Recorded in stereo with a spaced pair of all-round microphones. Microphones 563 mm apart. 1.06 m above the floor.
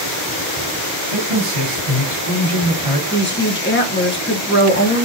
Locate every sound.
1.1 s a man speaking: 75° right (ahead or behind), 2.5 m
3.1 s a woman speaking: 20° left (ahead or behind), 0.9 m